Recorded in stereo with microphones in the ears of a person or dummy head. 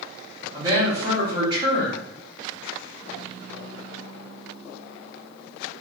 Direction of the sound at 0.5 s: 20° right (ahead or behind).